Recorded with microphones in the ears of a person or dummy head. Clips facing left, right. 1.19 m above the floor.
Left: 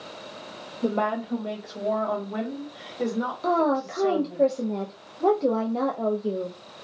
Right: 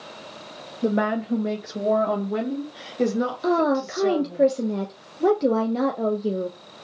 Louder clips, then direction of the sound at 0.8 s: Right 3 dB; 15° right (ahead or behind).